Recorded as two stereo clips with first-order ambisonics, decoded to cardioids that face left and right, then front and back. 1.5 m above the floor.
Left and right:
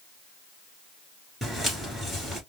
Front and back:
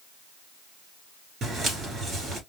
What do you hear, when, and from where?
1.4 s footsteps: 175° right, 1.6 m